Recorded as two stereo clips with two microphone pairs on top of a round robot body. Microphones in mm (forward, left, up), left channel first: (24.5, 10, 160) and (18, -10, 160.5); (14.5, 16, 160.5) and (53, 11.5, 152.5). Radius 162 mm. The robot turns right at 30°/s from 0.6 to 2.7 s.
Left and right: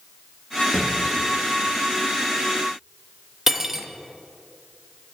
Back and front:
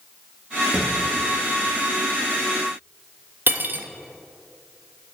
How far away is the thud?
About 3.5 m.